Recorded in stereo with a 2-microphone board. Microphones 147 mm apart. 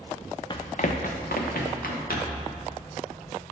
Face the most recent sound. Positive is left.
turn(degrees=85)